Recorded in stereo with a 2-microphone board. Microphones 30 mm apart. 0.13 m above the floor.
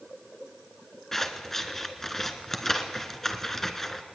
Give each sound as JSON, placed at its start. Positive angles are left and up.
{"t": 1.1, "sound": "scissors", "side_deg": 15, "distance_m": 1.4}